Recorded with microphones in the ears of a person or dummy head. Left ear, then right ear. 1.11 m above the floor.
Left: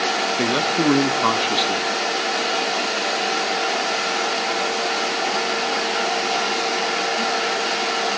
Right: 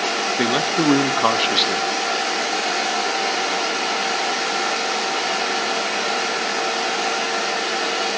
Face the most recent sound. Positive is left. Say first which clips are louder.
# even
turn(degrees=-10)  # may be behind; listen again after turning